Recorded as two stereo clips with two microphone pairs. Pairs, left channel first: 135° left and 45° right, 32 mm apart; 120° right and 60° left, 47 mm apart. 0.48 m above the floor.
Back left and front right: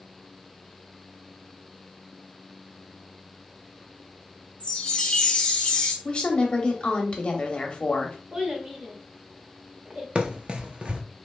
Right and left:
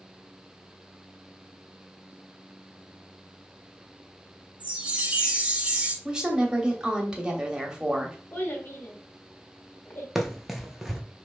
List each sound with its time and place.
4.6 s a chime: 110° left, 0.8 m
6.0 s a woman speaking: 120° left, 0.8 m
8.3 s a child speaking: 100° right, 1.0 m
10.2 s running footsteps: 25° right, 0.5 m